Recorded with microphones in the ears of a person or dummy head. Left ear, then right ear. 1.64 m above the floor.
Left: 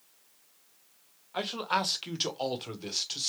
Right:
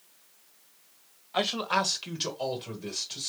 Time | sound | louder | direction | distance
1.3 | a man speaking | right 3 dB | 15° right (ahead or behind) | 0.5 m